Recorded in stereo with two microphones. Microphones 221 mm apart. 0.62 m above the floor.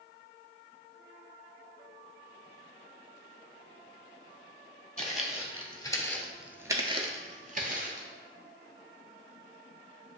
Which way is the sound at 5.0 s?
35° left (ahead or behind).